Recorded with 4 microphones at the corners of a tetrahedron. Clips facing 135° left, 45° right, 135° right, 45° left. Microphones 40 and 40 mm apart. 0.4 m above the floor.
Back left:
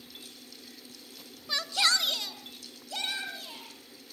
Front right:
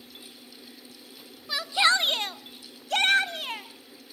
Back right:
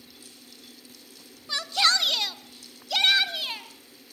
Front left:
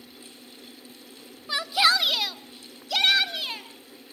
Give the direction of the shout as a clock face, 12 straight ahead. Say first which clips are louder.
Front right 5 dB, front left 2 dB; 11 o'clock.